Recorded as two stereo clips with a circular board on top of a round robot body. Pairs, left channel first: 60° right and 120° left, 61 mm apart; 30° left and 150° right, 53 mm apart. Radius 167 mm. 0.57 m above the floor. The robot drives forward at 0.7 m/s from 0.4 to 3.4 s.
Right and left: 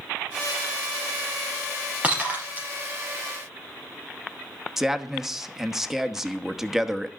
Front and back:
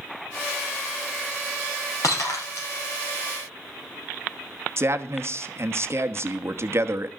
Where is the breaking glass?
50° left, 4.5 m; by 2.7 s 55° left, 4 m.